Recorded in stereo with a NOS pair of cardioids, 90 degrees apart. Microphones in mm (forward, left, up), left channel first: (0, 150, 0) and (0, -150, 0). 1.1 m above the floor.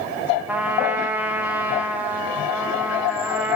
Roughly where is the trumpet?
Ahead.